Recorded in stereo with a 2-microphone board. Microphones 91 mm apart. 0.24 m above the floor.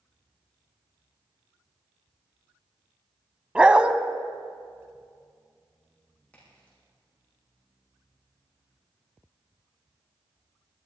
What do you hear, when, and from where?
3.5 s a dog barking: 15° right (ahead or behind), 0.7 m
6.3 s a crack: 15° left (ahead or behind), 8.5 m